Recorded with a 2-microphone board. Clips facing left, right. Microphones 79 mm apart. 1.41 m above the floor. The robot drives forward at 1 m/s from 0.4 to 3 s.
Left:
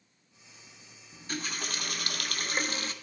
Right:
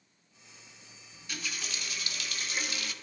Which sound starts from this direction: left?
A running tap, at 1.1 s.